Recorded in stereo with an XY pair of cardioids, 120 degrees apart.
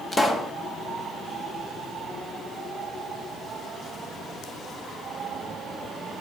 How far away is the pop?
About 1.1 m.